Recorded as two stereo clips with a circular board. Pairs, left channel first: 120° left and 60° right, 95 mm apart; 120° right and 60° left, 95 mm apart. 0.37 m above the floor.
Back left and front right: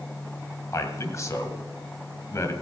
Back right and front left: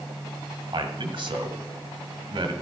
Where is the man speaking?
65° left, 1.7 m.